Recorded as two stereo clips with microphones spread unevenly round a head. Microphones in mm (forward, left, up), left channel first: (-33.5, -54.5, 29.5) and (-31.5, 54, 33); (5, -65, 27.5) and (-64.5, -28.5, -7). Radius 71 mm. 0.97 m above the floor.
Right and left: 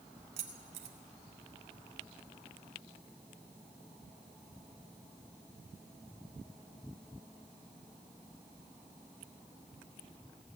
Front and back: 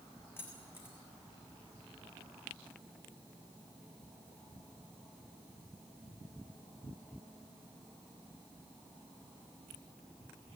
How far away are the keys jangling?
About 2 m.